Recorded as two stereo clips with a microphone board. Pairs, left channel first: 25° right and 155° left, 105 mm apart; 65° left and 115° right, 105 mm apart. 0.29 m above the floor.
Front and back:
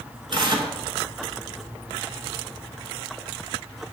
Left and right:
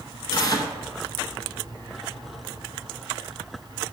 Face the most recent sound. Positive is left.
turn(degrees=115)